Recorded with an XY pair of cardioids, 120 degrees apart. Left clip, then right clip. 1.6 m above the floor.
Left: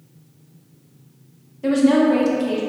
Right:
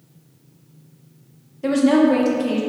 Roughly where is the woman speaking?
Ahead.